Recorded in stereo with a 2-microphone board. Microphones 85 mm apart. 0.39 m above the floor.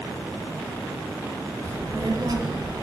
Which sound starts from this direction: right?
A child speaking, at 1.6 s.